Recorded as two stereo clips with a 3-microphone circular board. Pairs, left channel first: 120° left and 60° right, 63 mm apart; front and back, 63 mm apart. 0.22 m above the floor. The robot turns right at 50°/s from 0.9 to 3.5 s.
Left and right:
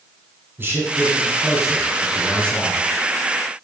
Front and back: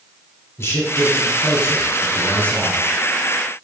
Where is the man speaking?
20° right, 1.7 m; by 2.9 s 80° left, 1.7 m.